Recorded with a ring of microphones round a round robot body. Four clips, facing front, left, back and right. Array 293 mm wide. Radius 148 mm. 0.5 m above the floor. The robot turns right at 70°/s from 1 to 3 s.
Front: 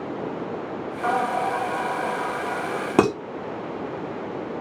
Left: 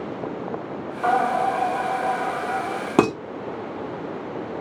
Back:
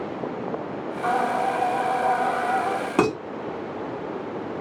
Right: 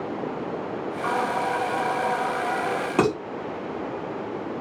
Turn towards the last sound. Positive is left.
turn(degrees=50)